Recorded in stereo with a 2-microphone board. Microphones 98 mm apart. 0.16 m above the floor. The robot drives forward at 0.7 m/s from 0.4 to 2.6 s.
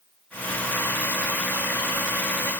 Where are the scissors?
No scissors in this recording.